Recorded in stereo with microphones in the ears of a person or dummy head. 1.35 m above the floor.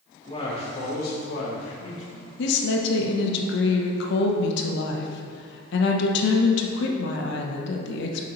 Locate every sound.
0.3 s a man speaking: 30° left (ahead or behind), 2 m; by 2.3 s 70° left (ahead or behind), 1.6 m
2.4 s a woman speaking: 70° left (ahead or behind), 1.0 m